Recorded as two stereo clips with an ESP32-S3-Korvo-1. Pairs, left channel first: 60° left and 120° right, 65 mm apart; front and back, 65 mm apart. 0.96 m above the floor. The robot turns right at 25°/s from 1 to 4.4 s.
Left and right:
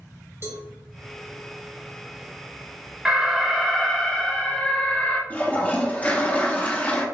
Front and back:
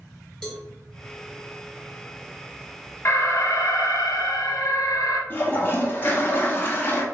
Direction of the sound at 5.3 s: 20° left.